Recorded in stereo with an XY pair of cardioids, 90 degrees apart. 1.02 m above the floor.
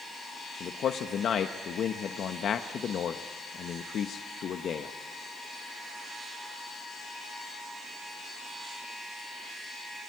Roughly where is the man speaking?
Ahead left.